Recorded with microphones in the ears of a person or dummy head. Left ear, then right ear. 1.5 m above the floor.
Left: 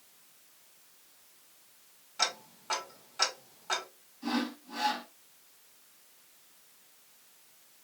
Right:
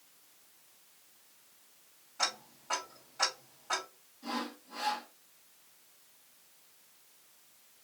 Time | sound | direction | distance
2.2 | ticking | 85° left | 1.6 m
4.2 | sawing | 65° left (ahead or behind) | 1.5 m